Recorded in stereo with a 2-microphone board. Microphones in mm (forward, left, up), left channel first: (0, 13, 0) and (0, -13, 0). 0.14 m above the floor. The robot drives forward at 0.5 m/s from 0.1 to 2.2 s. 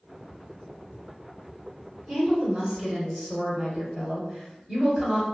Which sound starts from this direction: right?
A woman speaking, at 2.1 s.